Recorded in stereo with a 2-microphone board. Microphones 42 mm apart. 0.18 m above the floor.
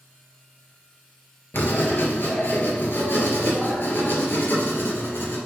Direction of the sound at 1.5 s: 55° left (ahead or behind).